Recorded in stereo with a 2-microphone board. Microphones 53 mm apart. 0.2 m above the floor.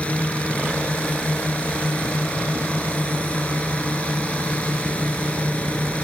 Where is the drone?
25° left (ahead or behind).